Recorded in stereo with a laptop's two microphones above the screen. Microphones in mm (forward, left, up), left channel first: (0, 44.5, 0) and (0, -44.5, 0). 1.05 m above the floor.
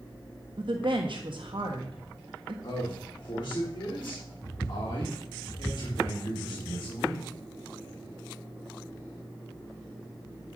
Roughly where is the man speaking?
Left.